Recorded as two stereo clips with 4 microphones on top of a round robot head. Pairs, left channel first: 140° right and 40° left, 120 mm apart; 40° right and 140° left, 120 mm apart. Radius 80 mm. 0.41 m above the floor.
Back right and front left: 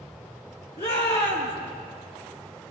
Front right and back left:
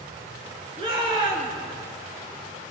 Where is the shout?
175° right, 8 m.